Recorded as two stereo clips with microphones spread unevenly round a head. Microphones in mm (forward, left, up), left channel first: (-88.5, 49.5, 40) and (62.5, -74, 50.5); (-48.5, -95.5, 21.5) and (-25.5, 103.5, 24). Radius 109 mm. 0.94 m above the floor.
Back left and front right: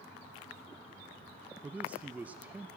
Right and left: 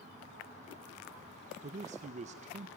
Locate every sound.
1.6 s a man speaking: 45° left, 0.7 m